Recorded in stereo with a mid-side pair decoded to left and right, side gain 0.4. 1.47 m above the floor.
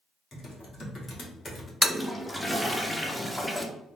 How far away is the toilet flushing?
About 0.6 m.